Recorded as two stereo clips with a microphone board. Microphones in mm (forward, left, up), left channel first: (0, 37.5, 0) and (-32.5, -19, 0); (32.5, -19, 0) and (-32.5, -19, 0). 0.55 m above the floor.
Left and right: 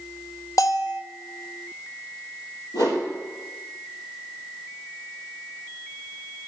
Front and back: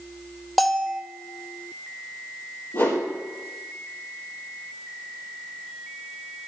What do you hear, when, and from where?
0.6 s a bell: 90° left, 0.5 m
2.7 s a whoosh: 55° left, 3.5 m